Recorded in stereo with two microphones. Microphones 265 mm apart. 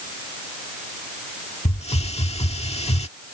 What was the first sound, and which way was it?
A hiss, 20° left (ahead or behind).